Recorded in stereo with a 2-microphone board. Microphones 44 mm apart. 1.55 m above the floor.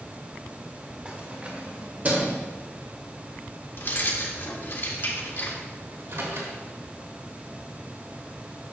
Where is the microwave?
70° right (ahead or behind), 2.5 m.